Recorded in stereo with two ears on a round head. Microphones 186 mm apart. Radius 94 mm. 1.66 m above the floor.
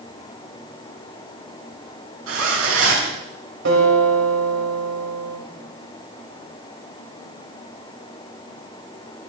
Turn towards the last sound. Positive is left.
turn(degrees=-60)  # may be behind; listen again after turning